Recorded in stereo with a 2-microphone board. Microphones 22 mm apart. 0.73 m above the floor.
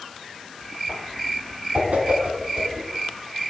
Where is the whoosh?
75° right (ahead or behind), 3.5 m.